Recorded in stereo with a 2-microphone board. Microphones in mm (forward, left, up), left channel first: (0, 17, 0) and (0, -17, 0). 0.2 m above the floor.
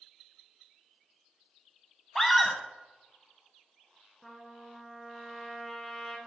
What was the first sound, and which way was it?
A scream, 5° left (ahead or behind).